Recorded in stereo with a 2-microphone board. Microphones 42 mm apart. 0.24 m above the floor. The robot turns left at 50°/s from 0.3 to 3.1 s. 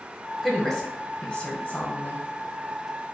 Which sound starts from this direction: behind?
A woman speaking, at 0.4 s.